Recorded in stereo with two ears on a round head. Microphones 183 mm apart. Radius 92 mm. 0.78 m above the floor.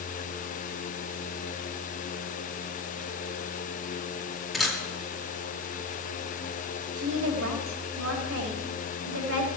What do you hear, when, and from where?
4.5 s a camera shutter: centre (ahead or behind), 1.8 m
7.0 s a woman speaking: 75° right (ahead or behind), 3.5 m